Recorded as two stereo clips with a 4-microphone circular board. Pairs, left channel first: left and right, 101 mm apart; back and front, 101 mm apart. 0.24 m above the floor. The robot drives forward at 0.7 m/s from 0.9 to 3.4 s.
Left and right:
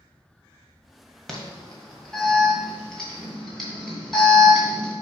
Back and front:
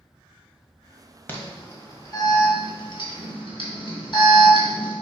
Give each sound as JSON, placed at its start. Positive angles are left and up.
{"t": 1.3, "sound": "an alarm", "azimuth_deg": 170, "distance_m": 1.4}